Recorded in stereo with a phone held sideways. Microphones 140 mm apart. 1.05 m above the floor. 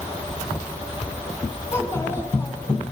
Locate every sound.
1.7 s a child speaking: 20° left (ahead or behind), 7.5 m